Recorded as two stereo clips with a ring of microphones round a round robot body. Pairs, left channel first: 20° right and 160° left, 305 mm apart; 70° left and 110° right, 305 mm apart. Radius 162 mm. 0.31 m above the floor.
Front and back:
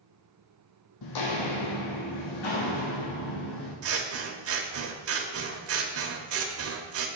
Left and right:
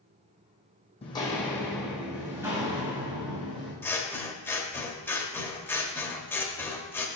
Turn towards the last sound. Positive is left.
turn(degrees=145)